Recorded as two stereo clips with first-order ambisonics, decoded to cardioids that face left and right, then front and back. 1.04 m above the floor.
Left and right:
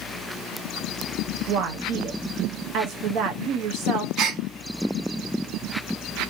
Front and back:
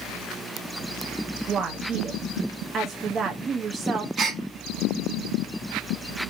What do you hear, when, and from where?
1.5 s a woman speaking: 120° right, 0.6 m
4.2 s a gasp: 125° right, 0.6 m